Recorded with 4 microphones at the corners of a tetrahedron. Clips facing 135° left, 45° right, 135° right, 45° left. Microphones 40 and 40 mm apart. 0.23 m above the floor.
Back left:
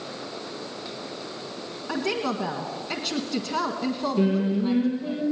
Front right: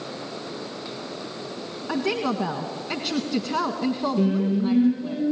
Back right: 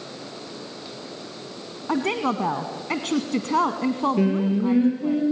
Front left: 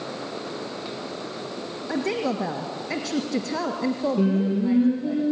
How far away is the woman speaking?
About 1.6 m.